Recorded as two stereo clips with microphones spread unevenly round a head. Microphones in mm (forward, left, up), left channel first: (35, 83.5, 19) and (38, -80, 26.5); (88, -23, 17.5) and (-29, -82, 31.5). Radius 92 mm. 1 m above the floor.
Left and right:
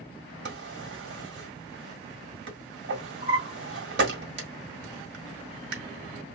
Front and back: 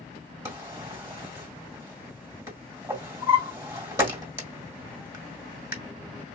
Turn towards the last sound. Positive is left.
turn(degrees=-85)